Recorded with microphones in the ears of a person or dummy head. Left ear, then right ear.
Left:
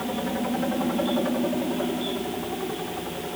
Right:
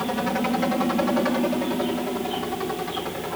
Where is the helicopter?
60° right (ahead or behind).